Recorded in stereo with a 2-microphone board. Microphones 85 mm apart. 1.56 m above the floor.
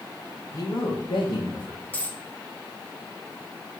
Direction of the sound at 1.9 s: 20° left (ahead or behind).